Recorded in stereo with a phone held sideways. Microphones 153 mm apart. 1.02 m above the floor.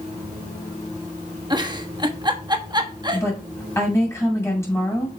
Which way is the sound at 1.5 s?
30° right (ahead or behind).